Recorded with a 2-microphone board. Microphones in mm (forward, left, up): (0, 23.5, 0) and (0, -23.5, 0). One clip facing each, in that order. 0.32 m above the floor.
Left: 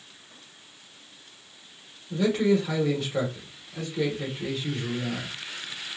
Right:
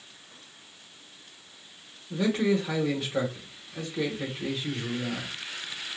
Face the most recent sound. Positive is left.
turn(degrees=-5)  # may be behind; listen again after turning